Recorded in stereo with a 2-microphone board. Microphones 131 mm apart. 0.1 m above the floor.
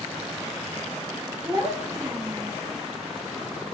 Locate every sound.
1.4 s a child speaking: 20° right (ahead or behind), 1.6 m